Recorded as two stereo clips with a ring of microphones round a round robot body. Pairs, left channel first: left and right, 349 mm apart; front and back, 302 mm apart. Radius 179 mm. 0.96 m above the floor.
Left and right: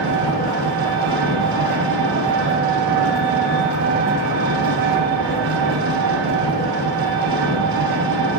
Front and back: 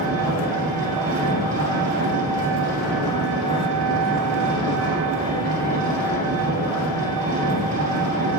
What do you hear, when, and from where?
0.0 s an engine running: 115° right, 1.8 m